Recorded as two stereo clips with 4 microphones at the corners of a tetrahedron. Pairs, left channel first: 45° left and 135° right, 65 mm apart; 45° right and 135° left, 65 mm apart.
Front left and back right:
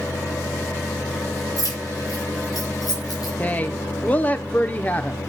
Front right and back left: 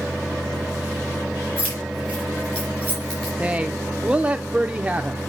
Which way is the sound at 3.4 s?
80° left.